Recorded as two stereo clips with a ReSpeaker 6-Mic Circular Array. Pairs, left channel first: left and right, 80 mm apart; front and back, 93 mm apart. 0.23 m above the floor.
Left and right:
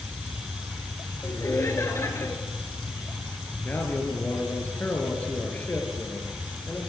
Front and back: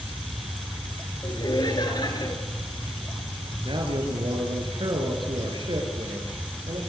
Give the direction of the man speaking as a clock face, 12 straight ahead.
7 o'clock.